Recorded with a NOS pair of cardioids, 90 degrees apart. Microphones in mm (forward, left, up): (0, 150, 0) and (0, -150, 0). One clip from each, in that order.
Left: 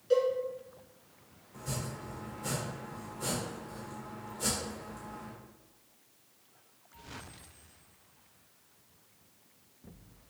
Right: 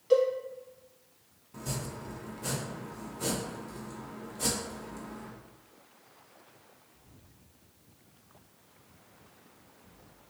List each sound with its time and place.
0.1 s a cowbell: 35° right, 1.9 m
1.5 s chopping: 55° right, 1.2 m